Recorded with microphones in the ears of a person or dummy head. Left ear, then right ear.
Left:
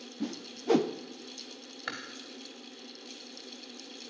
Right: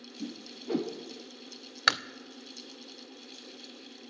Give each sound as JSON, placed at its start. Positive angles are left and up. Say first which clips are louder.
{"t": 0.2, "sound": "a whoosh", "louder": "left 4 dB", "side_deg": 35, "distance_m": 0.5}
{"t": 1.9, "sound": "chewing", "louder": "right 13 dB", "side_deg": -55, "distance_m": 0.5}